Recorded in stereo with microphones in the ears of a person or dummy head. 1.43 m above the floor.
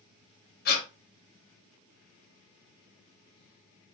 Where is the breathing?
50° left (ahead or behind), 0.7 m.